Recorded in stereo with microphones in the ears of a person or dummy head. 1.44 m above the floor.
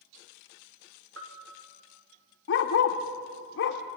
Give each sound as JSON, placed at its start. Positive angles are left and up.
{"t": 1.2, "sound": "a bell", "side_deg": -80, "distance_m": 3.0}
{"t": 2.5, "sound": "a dog barking", "side_deg": 60, "distance_m": 1.7}